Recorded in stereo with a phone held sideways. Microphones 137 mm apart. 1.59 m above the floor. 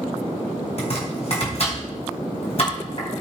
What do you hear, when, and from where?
0.8 s chopping: 50° left (ahead or behind), 4.5 m